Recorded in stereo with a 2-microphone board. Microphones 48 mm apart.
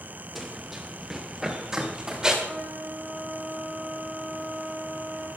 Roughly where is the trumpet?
Right.